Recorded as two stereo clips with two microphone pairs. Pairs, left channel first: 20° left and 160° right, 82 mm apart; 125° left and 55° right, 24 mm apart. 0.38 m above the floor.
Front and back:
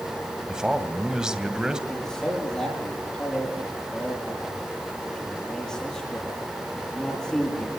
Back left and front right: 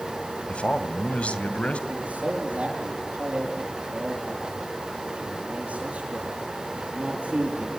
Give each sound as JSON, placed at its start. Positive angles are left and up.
{"t": 0.5, "sound": "a man speaking", "azimuth_deg": 115, "distance_m": 2.5}
{"t": 1.9, "sound": "a man speaking", "azimuth_deg": -60, "distance_m": 7.5}